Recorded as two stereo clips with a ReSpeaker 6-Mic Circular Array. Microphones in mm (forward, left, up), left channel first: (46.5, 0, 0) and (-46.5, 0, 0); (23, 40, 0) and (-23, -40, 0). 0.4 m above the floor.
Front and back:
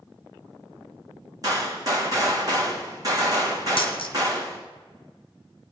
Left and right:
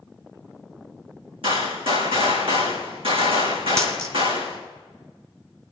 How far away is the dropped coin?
About 1.7 m.